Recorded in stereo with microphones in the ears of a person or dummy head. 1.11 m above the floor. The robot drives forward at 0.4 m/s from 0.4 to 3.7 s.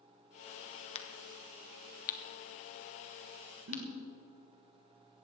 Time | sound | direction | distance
0.9 | a crack | 35° left (ahead or behind) | 1.1 m
3.7 | a giggle | 85° right | 6 m